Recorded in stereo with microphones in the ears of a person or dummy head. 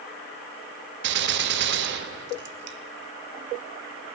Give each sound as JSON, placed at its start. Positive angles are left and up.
{"t": 1.0, "sound": "a gunshot", "side_deg": -60, "distance_m": 0.6}